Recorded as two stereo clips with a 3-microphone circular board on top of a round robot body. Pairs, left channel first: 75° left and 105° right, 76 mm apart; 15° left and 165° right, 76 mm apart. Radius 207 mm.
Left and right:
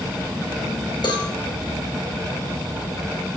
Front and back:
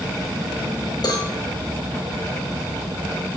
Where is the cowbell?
50° left, 2.0 m.